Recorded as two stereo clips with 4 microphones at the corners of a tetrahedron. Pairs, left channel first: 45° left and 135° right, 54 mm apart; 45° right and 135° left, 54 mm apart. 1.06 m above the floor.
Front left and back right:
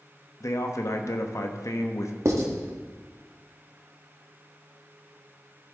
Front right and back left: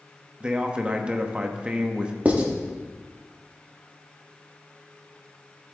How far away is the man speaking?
About 1.1 m.